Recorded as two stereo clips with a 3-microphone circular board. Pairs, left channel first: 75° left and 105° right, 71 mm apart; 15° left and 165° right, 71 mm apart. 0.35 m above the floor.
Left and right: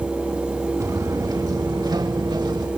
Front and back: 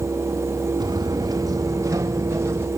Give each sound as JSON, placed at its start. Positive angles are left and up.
{"t": 0.8, "sound": "footsteps", "azimuth_deg": -145, "distance_m": 3.0}